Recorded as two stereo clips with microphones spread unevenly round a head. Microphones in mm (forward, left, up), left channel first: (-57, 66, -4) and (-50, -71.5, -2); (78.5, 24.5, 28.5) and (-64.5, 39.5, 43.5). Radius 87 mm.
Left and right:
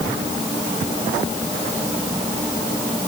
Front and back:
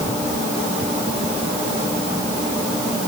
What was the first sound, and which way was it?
Only background noise.